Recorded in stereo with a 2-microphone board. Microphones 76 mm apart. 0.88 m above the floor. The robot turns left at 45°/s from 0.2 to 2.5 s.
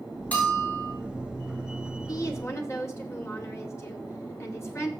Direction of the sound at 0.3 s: 20° left (ahead or behind).